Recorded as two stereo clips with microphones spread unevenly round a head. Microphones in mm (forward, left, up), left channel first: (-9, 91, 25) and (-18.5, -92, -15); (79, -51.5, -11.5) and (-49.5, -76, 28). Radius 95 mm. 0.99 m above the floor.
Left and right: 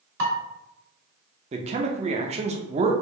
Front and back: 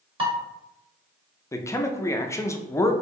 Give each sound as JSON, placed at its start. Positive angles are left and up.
{"t": 0.2, "sound": "dishes clattering", "azimuth_deg": -120, "distance_m": 1.7}
{"t": 1.5, "sound": "a man speaking", "azimuth_deg": -45, "distance_m": 0.5}